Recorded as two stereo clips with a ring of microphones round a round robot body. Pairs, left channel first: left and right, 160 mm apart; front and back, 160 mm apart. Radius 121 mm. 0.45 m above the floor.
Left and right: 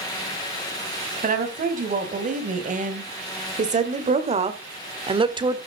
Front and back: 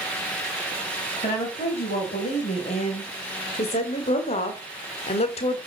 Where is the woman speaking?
60° right, 3 m; by 5.6 s 35° right, 1.3 m.